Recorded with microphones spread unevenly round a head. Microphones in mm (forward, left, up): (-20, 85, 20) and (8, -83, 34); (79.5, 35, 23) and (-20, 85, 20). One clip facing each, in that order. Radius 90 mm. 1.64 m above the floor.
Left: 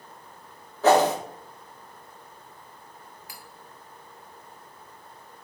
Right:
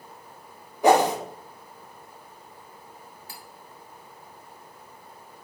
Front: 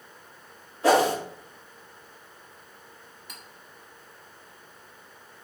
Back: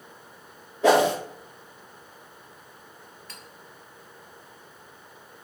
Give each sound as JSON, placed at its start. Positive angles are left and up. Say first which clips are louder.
{"t": 0.8, "sound": "a whoosh", "louder": "even, back 1 dB", "azimuth_deg": -155, "distance_m": 1.6}
{"t": 3.3, "sound": "cutlery clinking", "louder": "right 3 dB, front 2 dB", "azimuth_deg": -90, "distance_m": 1.0}